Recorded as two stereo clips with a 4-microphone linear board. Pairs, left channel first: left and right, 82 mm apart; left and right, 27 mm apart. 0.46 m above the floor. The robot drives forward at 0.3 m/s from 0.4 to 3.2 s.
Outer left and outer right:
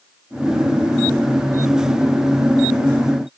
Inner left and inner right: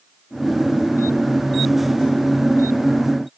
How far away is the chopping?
No chopping in this recording.